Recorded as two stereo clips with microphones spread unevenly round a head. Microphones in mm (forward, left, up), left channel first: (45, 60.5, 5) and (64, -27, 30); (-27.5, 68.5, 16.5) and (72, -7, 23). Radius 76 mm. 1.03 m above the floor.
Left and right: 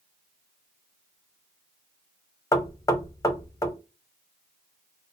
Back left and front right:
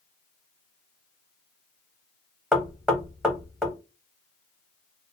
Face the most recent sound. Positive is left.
turn(degrees=50)